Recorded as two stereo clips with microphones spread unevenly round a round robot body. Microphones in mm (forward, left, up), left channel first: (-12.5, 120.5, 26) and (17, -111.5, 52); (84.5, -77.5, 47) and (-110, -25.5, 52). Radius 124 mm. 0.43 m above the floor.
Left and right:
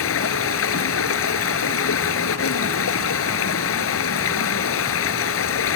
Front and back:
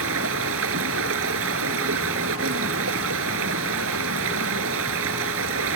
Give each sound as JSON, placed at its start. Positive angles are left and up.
{"t": 0.0, "sound": "running water", "azimuth_deg": 130}